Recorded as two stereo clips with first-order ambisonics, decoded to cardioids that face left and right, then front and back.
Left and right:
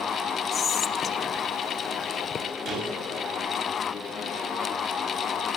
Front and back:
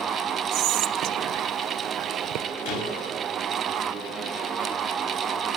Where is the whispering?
155° left, 0.9 m.